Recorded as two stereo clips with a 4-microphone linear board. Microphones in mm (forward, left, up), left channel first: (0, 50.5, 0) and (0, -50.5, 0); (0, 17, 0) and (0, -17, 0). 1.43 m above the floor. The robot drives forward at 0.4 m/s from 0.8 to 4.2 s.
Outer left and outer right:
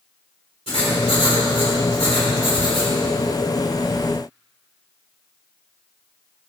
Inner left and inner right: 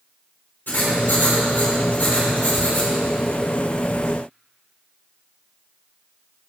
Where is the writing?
75° left (ahead or behind), 3 m; by 2.9 s 65° left (ahead or behind), 3.5 m.